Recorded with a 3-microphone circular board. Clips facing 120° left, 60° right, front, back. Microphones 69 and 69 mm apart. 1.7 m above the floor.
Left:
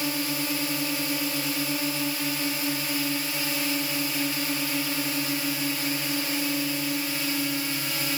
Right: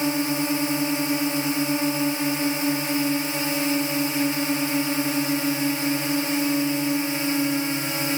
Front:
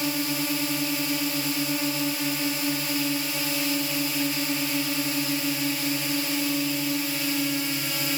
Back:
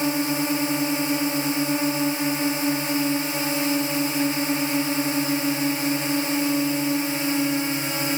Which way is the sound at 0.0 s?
120° right.